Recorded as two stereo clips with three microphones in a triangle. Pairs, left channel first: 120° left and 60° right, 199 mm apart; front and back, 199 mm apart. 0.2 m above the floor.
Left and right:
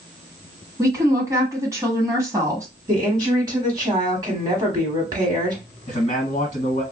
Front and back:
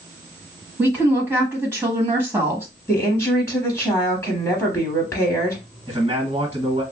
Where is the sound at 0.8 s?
115° right, 1.2 m.